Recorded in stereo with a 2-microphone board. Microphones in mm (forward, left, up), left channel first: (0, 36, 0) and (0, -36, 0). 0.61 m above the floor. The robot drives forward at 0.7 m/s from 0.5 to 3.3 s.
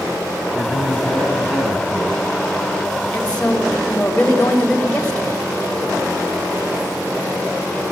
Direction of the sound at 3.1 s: 15° left (ahead or behind).